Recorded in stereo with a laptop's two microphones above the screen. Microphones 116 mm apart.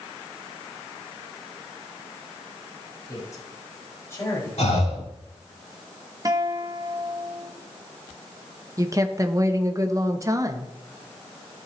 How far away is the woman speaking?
About 0.8 m.